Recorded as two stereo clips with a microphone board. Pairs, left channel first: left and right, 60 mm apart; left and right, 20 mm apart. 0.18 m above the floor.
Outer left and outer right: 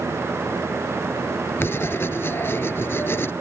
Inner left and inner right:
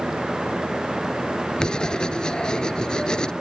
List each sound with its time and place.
1.6 s writing: 40° left (ahead or behind)